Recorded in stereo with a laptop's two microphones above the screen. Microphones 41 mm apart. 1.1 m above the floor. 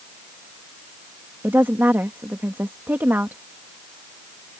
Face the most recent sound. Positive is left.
turn(degrees=-60)  # may be behind; listen again after turning